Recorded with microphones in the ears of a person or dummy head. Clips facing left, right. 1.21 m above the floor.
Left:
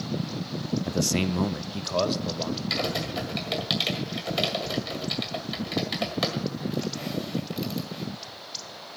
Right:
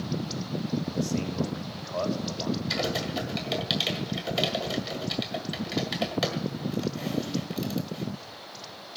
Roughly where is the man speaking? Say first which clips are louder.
Left 3 dB; left.